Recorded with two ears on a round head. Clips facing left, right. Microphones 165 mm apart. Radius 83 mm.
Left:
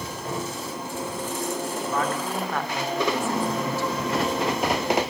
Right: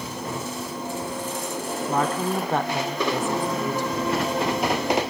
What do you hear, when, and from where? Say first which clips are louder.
1.9 s a woman speaking: right 5 dB; 30° right (ahead or behind), 2.5 m; by 4.2 s 15° right (ahead or behind), 4.5 m